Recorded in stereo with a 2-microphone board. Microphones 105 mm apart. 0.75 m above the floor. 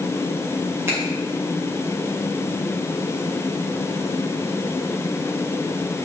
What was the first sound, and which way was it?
A finger snap, 25° right (ahead or behind).